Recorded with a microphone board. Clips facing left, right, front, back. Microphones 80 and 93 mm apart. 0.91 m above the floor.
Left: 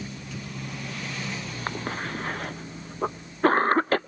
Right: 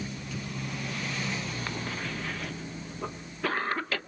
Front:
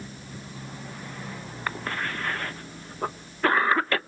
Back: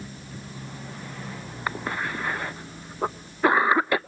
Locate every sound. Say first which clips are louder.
1.7 s a cough: left 4 dB, back 2 dB; 110° left, 0.6 m